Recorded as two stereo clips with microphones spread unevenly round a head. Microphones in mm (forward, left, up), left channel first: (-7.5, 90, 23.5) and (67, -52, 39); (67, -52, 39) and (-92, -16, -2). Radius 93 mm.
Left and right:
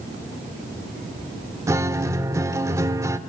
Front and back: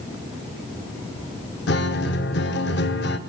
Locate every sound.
1.7 s a guitar: 10° left, 1.3 m